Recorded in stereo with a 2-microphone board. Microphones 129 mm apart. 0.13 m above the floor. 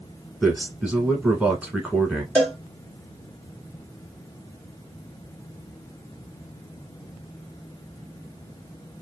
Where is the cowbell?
15° left (ahead or behind), 1.9 m.